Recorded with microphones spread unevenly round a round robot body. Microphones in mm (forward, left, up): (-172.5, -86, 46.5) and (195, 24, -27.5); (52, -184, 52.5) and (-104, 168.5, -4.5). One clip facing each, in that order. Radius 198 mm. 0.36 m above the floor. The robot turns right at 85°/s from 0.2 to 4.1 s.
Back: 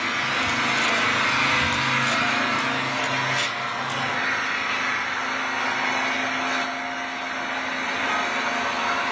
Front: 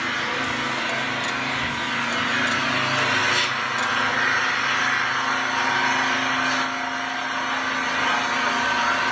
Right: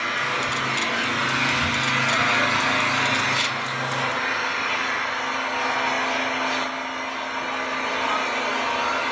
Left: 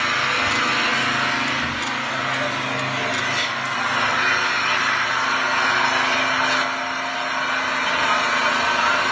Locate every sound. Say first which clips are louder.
0.0 s an engine running: front 1 dB, left 2 dB; 105° left, 3 m; by 9.1 s 75° left, 3 m